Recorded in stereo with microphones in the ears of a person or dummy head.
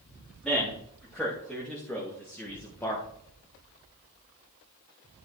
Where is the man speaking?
Centre (ahead or behind), 3 m; by 3.0 s 15° left (ahead or behind), 1.2 m.